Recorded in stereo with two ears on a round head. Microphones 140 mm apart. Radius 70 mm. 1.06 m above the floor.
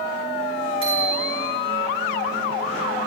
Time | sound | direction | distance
0.8 | a bicycle bell | 35° right (ahead or behind) | 10 m